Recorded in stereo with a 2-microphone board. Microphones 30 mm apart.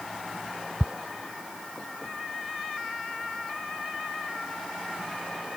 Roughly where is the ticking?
Right.